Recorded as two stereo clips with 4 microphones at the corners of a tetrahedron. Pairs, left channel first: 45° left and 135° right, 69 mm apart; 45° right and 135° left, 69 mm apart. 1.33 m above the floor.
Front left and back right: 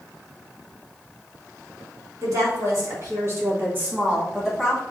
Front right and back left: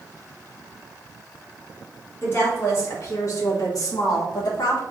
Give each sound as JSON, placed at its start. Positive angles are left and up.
{"t": 2.2, "sound": "a woman speaking", "azimuth_deg": -100, "distance_m": 2.0}